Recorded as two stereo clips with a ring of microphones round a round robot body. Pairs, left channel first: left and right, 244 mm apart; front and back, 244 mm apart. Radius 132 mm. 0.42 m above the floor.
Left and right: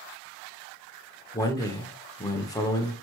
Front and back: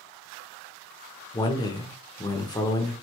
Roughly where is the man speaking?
Ahead left.